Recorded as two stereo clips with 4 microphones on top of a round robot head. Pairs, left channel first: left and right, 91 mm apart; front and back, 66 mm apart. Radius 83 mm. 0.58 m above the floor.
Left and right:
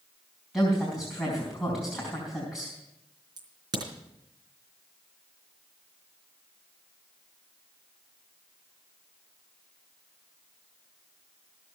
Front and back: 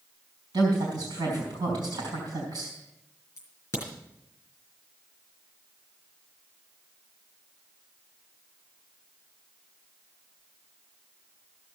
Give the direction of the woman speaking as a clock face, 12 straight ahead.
6 o'clock.